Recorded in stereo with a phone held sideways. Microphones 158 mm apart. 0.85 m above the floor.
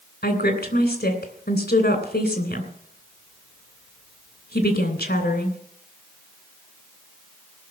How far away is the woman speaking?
About 3 m.